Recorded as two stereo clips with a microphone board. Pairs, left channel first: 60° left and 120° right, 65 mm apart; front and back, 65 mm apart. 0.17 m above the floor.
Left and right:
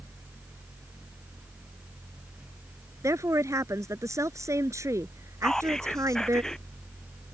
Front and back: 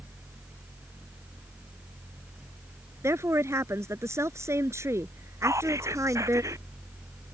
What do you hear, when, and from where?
3.0 s a woman speaking: 145° right
5.4 s whispering: 145° left